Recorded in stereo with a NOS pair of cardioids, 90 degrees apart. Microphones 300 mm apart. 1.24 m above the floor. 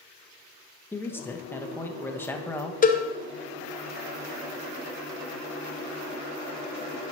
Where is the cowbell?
25° left, 0.7 m.